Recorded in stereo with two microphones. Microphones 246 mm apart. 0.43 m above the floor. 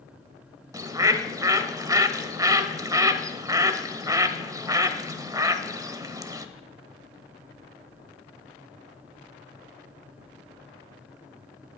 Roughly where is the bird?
Centre.